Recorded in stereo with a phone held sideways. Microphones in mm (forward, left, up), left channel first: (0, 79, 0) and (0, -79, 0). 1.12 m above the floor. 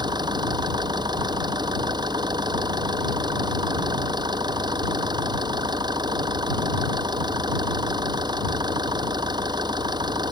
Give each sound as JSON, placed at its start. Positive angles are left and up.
{"t": 0.0, "sound": "an engine running", "side_deg": -25}